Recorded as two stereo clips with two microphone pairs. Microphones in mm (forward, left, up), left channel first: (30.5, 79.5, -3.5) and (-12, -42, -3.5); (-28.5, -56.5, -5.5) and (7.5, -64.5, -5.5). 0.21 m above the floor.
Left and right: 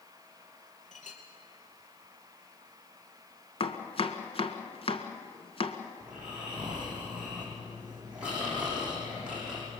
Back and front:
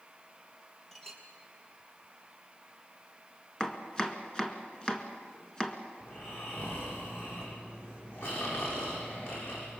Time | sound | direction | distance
0.9 | a clink | 85° left | 3 m
3.6 | chopping | 105° left | 1.6 m
6.0 | snoring | 170° left | 8 m